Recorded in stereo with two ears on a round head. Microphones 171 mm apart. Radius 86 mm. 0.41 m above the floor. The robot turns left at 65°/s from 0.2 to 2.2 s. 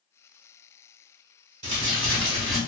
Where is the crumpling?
115° right, 1.5 m; by 2.6 s 150° right, 1.5 m.